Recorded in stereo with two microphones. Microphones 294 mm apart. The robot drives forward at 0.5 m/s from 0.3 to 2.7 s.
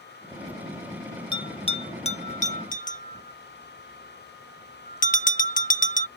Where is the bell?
15° left (ahead or behind); by 6.1 s 25° left (ahead or behind).